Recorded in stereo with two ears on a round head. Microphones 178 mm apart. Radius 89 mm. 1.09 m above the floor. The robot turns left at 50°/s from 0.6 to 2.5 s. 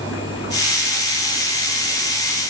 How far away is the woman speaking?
No woman speaking in this recording.